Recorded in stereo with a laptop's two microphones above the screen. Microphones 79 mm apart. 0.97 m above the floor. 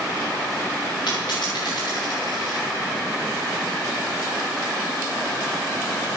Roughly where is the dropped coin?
Left.